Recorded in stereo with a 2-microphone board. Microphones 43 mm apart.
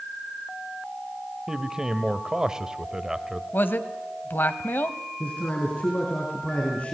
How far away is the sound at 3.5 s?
About 1.5 m.